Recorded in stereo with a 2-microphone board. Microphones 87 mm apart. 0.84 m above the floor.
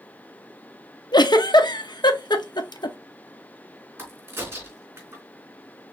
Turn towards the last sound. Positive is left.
turn(degrees=-25)  # may be behind; listen again after turning